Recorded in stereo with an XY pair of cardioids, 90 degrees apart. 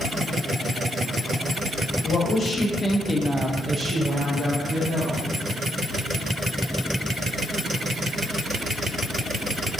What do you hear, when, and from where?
2.0 s a woman speaking: 60° left, 1.4 m; by 5.2 s 75° right, 2.0 m